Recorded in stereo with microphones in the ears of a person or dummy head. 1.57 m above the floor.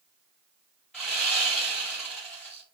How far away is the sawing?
About 1.6 m.